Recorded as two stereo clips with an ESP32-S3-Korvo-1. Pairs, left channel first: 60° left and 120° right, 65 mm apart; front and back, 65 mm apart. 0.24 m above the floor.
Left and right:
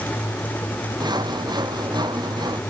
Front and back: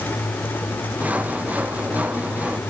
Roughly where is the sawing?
Right.